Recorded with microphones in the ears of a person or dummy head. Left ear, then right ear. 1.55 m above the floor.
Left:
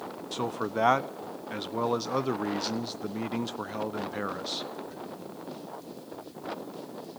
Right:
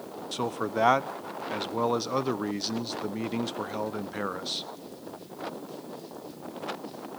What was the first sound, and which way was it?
A man speaking, 5° right (ahead or behind).